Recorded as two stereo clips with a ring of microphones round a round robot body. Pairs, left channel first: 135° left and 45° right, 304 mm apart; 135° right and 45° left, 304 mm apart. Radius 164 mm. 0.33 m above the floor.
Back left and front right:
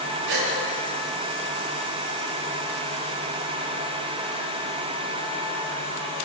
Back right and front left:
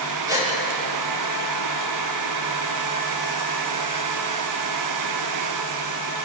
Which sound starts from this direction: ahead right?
A gasp, at 0.3 s.